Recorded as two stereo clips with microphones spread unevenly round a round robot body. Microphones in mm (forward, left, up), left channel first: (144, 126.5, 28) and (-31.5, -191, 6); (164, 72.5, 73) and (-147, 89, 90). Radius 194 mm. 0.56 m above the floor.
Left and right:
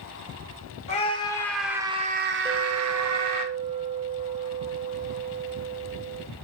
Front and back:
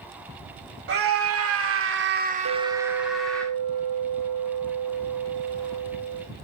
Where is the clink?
165° left, 1.4 m.